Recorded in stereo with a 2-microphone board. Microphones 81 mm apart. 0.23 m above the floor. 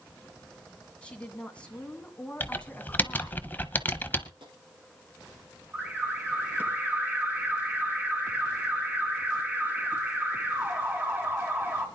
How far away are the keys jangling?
No keys jangling in this recording.